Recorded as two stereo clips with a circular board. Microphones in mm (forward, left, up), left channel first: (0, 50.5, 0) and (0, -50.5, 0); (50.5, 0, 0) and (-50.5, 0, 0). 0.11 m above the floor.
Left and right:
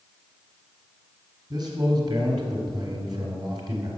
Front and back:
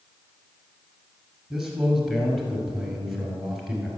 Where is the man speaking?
95° right, 1.9 m.